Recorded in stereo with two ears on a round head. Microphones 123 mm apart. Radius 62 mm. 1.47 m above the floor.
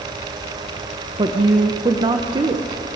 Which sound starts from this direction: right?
A woman speaking, at 1.2 s.